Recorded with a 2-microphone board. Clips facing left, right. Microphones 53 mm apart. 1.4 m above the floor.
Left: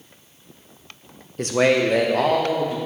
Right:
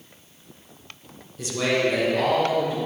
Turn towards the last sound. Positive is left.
turn(degrees=60)  # may be behind; listen again after turning